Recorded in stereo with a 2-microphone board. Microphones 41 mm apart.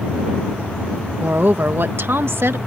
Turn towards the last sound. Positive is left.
turn(degrees=-75)  # may be behind; listen again after turning